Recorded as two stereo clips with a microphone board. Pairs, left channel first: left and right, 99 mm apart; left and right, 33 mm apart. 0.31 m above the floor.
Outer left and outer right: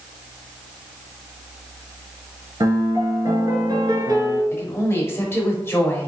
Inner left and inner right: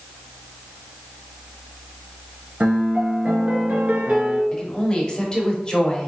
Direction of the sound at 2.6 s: 45° right (ahead or behind).